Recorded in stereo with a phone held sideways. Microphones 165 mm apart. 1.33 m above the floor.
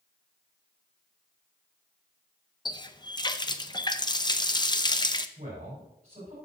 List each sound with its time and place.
2.6 s a running tap: 25° left (ahead or behind), 0.5 m
5.4 s a man speaking: 40° right (ahead or behind), 5 m